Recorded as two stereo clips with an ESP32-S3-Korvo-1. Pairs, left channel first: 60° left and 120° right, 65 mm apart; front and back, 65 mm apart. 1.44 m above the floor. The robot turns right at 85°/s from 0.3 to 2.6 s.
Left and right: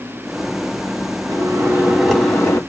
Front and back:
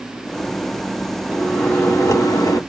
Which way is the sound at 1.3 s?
90° right.